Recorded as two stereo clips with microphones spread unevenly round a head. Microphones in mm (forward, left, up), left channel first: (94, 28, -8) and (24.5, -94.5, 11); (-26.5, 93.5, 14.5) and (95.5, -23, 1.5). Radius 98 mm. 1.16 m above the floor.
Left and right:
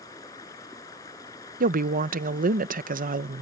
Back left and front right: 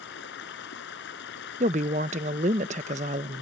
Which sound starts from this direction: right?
A woman speaking, at 1.6 s.